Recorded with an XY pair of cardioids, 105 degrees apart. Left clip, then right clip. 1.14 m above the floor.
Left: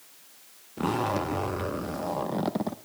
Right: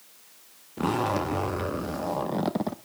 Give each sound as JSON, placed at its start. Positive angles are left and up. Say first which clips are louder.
{"t": 0.8, "sound": "a zipper", "louder": "right 1 dB", "azimuth_deg": -10, "distance_m": 0.9}